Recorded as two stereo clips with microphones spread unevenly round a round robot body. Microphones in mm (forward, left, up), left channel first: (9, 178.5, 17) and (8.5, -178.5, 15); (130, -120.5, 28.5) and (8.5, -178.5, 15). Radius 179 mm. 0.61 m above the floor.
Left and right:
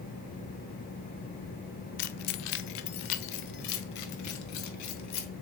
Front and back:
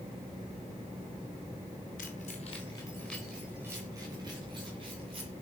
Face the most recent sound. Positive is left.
turn(degrees=135)